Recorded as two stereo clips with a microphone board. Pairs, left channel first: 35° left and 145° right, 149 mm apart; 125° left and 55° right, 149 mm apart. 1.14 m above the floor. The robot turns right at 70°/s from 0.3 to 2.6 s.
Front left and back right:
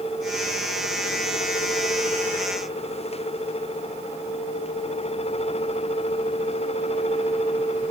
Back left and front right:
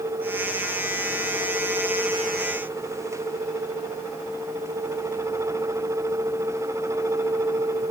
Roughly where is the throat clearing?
No throat clearing in this recording.